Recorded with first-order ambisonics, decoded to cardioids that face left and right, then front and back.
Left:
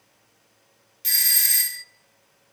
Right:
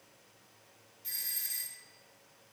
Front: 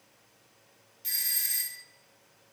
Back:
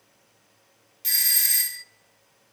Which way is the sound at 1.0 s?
120° left.